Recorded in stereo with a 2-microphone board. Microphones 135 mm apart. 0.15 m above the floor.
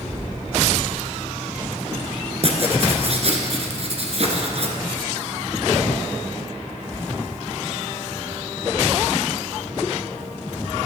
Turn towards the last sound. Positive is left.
turn(degrees=-55)  # may be behind; listen again after turning